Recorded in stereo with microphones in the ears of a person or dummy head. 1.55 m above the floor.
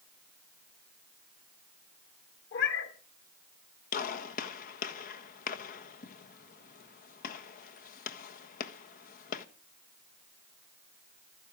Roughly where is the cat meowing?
Left.